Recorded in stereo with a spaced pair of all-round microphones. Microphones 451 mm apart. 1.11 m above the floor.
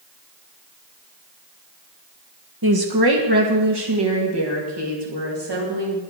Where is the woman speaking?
50° right (ahead or behind), 1.1 m; by 6.0 s 65° right (ahead or behind), 3 m.